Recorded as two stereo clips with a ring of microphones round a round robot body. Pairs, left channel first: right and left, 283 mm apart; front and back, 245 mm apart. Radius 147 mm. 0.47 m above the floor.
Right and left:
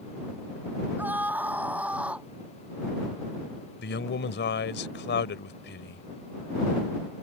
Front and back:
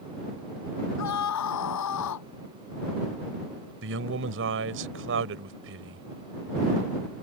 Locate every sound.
1.0 s a scream: 5° left
3.8 s a man speaking: 140° right